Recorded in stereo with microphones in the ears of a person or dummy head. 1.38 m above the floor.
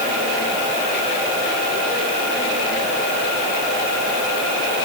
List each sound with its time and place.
Only background noise.